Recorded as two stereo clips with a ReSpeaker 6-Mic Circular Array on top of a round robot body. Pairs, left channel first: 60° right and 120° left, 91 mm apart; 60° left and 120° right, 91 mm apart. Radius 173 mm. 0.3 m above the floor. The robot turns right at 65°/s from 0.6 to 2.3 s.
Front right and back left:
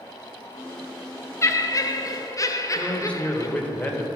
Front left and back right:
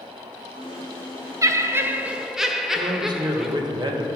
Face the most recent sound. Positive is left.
turn(degrees=-135)